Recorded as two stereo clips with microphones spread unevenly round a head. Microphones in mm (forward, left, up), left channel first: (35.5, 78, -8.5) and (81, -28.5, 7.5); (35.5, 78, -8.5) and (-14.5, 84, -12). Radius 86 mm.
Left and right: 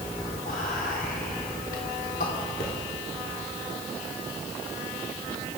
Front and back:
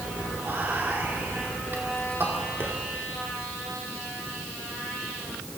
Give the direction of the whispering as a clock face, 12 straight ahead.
8 o'clock.